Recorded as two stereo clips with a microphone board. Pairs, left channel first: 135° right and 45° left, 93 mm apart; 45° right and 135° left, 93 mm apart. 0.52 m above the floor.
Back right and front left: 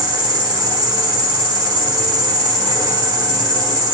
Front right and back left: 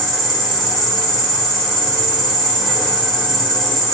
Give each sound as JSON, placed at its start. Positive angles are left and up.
{"t": 0.0, "sound": "an insect", "azimuth_deg": 40, "distance_m": 1.3}